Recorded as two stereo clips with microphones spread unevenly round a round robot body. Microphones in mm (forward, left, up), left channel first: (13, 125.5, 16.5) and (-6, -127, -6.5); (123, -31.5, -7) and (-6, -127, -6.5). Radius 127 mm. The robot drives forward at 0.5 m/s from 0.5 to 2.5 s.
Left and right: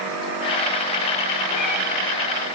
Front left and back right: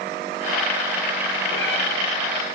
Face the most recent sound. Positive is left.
turn(degrees=85)